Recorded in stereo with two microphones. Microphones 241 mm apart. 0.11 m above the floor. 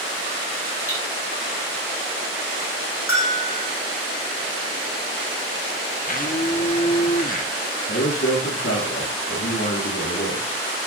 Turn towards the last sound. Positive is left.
turn(degrees=60)  # may be behind; listen again after turning